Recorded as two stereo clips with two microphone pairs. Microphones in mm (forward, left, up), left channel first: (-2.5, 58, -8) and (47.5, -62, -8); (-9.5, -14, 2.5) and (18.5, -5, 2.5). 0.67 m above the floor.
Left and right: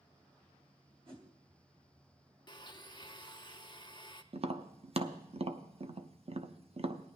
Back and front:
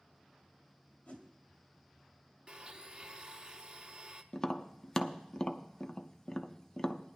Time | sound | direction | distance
1.1 | a whoosh | 115° right | 1.8 m
2.5 | a blender | 65° left | 0.6 m
4.3 | tapping | 95° right | 0.5 m